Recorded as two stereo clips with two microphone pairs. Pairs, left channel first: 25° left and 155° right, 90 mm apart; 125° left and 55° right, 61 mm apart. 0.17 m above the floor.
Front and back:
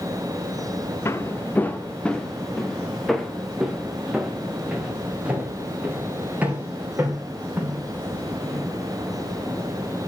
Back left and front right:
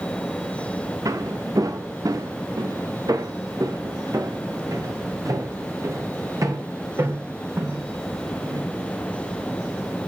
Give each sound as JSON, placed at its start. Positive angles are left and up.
{"t": 1.1, "sound": "footsteps", "azimuth_deg": -35, "distance_m": 1.5}